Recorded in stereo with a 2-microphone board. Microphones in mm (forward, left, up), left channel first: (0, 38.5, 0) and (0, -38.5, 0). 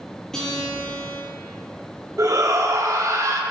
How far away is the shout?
About 0.9 m.